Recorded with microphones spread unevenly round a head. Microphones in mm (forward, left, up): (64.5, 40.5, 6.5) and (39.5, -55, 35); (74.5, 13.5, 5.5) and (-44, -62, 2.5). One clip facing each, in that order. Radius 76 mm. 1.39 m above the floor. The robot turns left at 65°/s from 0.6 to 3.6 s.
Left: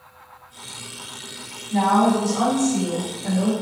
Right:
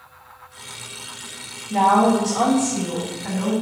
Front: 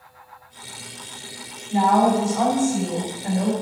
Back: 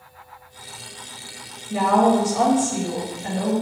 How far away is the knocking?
I don't hear knocking.